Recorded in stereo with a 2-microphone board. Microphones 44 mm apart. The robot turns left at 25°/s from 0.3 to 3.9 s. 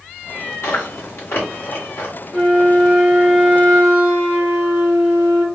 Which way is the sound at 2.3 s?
30° left.